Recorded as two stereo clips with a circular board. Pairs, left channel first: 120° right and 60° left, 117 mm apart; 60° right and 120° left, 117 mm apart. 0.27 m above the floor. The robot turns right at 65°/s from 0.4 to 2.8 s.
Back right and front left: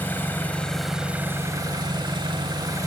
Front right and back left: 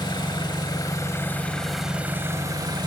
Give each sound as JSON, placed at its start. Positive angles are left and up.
{"t": 0.0, "sound": "an engine running", "azimuth_deg": -55, "distance_m": 0.7}